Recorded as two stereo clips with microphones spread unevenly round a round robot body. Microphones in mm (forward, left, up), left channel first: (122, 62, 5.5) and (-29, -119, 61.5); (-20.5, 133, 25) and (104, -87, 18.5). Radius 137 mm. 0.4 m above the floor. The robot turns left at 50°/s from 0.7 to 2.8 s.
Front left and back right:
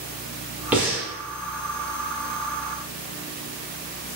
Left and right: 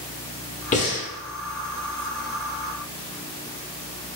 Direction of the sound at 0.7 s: 125° left.